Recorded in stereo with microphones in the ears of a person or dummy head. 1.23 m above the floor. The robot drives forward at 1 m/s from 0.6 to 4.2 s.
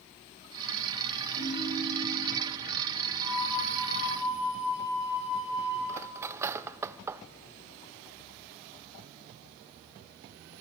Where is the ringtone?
35° left (ahead or behind), 3.5 m; by 2.4 s 25° left (ahead or behind), 4.5 m.